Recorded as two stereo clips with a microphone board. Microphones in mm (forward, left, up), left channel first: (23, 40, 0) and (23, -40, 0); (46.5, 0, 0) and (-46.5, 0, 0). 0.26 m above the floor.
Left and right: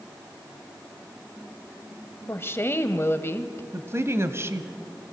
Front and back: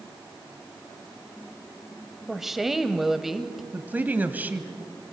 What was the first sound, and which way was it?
A woman speaking, 95° left.